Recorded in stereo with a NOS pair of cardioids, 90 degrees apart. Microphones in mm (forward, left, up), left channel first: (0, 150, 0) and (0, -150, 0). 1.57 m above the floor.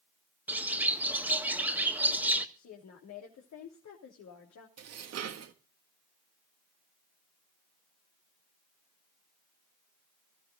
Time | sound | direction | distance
0.5 | a bird | 5° right | 1.8 m
2.5 | a woman speaking | 65° left | 3.5 m
4.8 | dishes clattering | 60° right | 1.8 m